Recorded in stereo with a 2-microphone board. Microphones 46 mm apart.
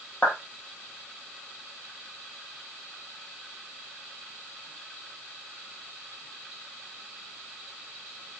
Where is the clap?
45° left (ahead or behind), 5 m.